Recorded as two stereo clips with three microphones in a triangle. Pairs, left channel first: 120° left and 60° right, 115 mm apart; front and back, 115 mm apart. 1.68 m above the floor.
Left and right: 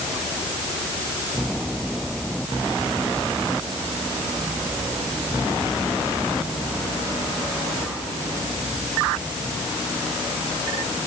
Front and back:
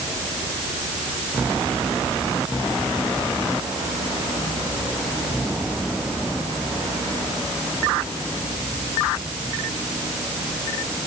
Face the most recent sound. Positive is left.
No sound to turn to.